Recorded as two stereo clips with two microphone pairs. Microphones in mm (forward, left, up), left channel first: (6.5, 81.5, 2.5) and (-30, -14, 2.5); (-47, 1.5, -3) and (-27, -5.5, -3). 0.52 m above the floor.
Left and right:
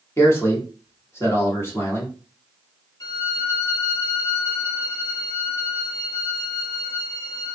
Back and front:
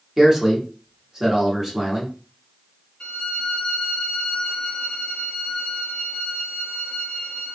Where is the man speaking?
30° left, 1.2 m.